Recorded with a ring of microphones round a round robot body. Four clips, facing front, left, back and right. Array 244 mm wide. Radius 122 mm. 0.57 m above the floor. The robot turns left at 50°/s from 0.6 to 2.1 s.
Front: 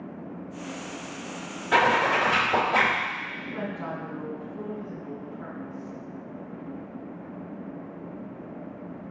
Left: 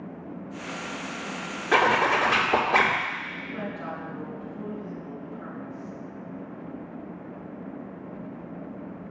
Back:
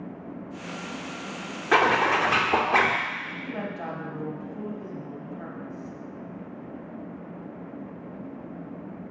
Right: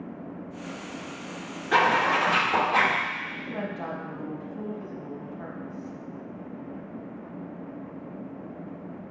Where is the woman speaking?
145° right, 3.5 m.